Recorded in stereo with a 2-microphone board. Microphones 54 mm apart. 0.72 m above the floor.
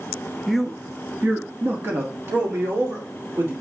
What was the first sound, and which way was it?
A man speaking, 5° left (ahead or behind).